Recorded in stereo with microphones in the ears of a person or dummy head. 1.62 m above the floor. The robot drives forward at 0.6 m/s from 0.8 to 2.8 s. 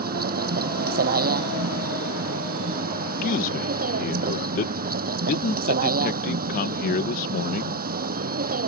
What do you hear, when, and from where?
0.0 s a vehicle: 45° right (ahead or behind)
3.2 s a man speaking: 40° left (ahead or behind)